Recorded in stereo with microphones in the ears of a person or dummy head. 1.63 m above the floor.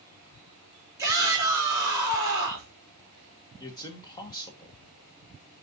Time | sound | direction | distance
1.0 | a shout | 20° right (ahead or behind) | 3.5 m
3.6 | a man speaking | 25° left (ahead or behind) | 1.3 m